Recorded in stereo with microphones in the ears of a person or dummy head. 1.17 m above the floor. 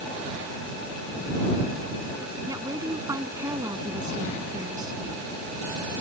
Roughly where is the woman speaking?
Centre.